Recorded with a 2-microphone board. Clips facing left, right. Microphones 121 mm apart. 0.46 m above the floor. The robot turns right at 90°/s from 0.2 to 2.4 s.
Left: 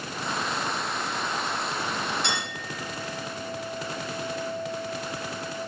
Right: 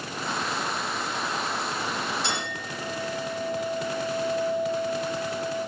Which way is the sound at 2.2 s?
65° left (ahead or behind).